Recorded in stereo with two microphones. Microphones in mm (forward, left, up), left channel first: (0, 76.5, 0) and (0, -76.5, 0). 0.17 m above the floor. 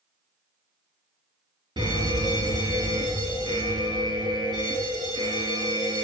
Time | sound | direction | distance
1.8 | a fire alarm | 30° right (ahead or behind) | 5.5 m